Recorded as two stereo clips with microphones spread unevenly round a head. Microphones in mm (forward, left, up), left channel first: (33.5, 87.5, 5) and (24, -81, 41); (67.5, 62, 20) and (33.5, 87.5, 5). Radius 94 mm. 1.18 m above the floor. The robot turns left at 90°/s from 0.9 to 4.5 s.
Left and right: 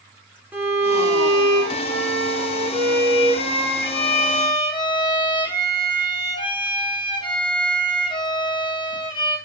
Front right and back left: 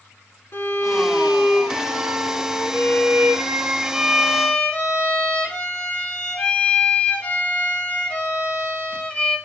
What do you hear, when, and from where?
0.5 s a violin: 10° right, 3 m; by 9.4 s 25° left, 3 m